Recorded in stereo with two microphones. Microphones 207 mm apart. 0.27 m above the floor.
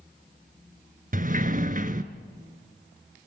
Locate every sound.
1.1 s a sliding door: 40° right (ahead or behind), 1.1 m